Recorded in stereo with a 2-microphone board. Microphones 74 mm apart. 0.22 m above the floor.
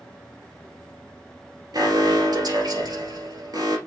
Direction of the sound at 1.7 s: 65° right (ahead or behind).